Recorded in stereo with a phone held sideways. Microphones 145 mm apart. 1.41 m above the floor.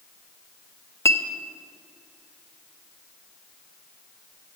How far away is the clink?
About 0.6 m.